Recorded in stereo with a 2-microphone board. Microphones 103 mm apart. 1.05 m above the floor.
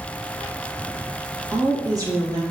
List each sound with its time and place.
1.5 s a woman speaking: 30° right (ahead or behind), 1.4 m